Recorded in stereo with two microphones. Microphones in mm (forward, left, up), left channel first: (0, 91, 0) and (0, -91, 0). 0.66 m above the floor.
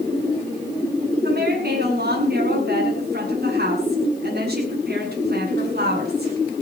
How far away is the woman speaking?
About 7 m.